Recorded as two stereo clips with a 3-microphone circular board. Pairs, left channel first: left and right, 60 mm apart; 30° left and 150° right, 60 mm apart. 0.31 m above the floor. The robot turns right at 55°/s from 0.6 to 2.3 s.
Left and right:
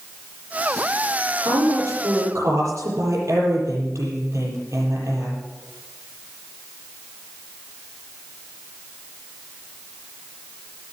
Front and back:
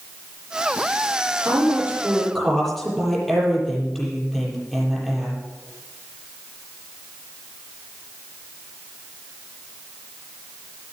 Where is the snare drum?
I don't hear a snare drum.